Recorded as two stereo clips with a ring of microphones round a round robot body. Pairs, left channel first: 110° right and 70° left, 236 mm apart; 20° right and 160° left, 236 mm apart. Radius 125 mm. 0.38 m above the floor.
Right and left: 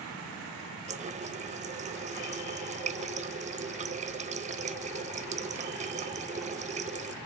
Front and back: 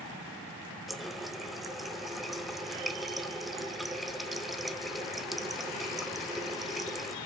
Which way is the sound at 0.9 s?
70° left.